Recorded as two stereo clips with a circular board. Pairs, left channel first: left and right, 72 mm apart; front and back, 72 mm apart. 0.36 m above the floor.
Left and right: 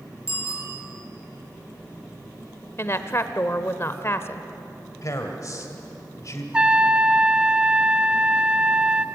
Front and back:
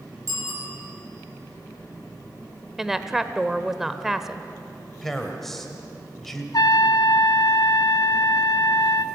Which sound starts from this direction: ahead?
A trumpet, at 6.5 s.